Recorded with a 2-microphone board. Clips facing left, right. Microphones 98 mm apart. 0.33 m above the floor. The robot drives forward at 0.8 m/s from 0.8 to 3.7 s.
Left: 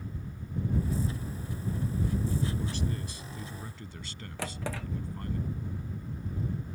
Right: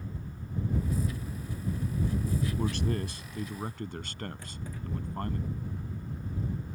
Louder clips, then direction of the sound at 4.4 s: Left 6 dB; 80° left.